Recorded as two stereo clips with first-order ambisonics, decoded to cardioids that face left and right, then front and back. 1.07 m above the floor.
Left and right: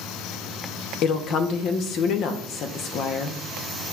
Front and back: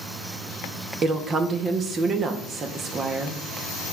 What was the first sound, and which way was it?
A woman speaking, 120° left.